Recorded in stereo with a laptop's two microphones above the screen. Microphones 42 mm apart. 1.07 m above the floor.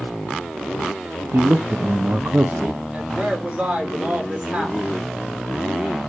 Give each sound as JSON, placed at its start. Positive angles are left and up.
{"t": 1.3, "sound": "a man speaking", "side_deg": -55, "distance_m": 0.7}
{"t": 2.9, "sound": "a woman speaking", "side_deg": -25, "distance_m": 3.0}